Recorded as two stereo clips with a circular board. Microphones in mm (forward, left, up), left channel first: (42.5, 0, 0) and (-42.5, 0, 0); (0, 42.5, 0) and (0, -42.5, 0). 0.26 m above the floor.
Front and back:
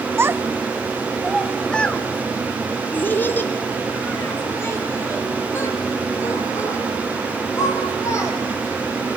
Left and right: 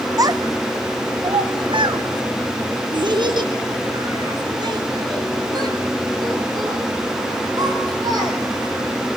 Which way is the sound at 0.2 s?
125° right.